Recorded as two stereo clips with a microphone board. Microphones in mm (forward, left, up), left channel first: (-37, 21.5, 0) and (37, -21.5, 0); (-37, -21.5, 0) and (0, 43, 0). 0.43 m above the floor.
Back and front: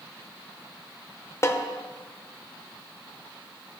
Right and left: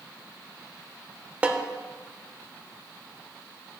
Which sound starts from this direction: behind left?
A snare drum, at 1.4 s.